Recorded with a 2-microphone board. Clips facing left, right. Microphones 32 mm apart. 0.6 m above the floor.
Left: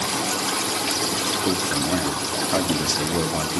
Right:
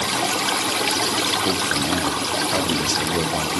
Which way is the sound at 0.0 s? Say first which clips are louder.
Right 3 dB; 35° right (ahead or behind).